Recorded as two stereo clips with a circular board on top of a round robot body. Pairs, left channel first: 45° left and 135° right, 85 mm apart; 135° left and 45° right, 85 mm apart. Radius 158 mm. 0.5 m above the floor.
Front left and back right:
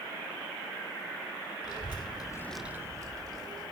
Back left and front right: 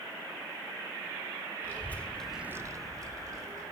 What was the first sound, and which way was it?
A child speaking, 70° left.